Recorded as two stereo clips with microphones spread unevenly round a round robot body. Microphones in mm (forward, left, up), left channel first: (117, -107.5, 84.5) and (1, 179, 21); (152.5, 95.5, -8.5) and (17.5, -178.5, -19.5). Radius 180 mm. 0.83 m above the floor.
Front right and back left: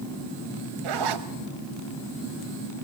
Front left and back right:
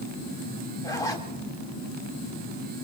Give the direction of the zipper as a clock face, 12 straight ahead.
7 o'clock.